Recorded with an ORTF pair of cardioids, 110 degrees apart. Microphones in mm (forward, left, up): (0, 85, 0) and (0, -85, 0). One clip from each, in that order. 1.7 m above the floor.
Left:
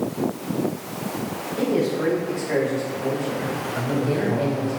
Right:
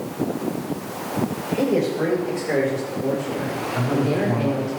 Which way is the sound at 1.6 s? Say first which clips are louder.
Right 1 dB; 40° right.